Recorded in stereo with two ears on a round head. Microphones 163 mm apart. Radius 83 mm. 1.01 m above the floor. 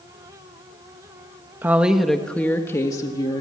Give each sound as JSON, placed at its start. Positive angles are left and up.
{"t": 1.6, "sound": "a woman speaking", "side_deg": -10, "distance_m": 1.5}